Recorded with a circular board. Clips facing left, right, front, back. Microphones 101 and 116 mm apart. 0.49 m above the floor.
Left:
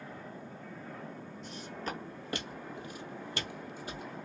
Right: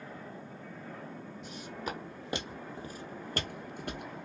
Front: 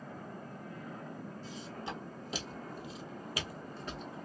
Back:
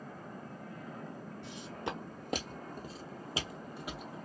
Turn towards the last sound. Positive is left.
turn(degrees=-90)